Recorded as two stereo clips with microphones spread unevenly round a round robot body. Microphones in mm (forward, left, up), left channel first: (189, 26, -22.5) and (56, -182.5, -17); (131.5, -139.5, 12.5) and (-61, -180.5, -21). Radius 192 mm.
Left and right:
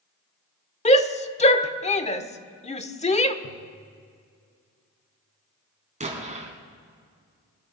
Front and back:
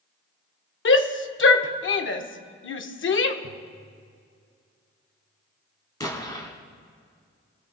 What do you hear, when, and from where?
0.8 s a shout: 5° right, 1.2 m
3.4 s tapping: 40° left, 4.5 m
6.0 s an explosion: 60° right, 3 m